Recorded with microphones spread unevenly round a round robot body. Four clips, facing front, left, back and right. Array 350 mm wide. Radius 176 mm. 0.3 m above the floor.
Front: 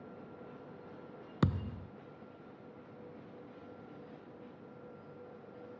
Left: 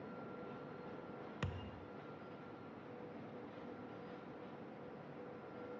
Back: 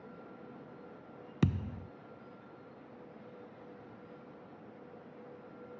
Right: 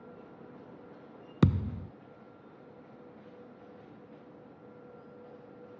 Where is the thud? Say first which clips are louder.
Right 23 dB, back 1 dB; 100° right.